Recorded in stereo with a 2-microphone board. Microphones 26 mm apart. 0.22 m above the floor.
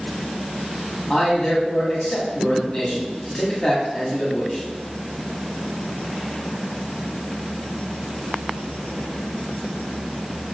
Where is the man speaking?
30° left (ahead or behind), 1.5 m.